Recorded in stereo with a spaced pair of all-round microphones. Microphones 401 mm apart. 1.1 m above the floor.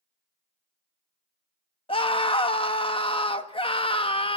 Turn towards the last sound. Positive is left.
turn(degrees=15)  # may be behind; listen again after turning